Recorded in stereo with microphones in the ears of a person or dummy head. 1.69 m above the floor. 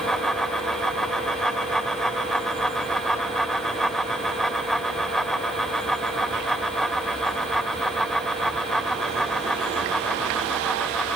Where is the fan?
Centre (ahead or behind).